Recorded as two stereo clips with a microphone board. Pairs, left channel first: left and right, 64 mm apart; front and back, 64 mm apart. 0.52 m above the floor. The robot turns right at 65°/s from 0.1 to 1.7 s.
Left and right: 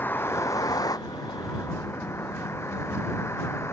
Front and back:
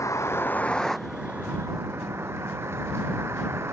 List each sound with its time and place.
0.0 s a vehicle: 30° left; by 3.7 s 135° left